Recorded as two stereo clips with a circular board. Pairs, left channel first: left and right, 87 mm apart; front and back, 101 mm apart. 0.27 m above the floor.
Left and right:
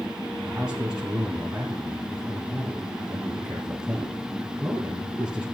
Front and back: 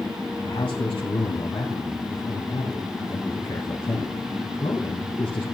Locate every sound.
0.4 s a man speaking: 10° right, 2 m